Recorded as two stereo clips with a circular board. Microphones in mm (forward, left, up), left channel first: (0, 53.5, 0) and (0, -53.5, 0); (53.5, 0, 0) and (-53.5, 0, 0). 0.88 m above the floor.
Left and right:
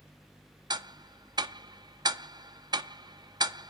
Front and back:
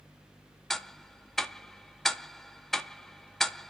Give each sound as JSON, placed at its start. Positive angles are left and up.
{"t": 0.7, "sound": "ticking", "azimuth_deg": -85, "distance_m": 0.5}